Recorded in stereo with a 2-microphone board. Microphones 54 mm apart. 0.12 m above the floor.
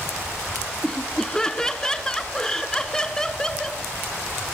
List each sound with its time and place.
0.8 s laughter: 10° left (ahead or behind), 1.1 m